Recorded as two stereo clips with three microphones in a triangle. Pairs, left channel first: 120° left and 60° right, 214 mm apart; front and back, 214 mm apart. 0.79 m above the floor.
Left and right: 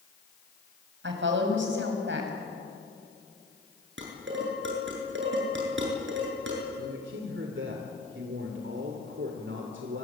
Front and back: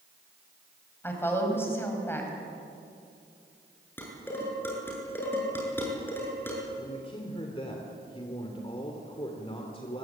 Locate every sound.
1.0 s a woman speaking: 80° right, 5.5 m
4.0 s dishes clattering: 80° right, 8 m
6.8 s a man speaking: 60° right, 3 m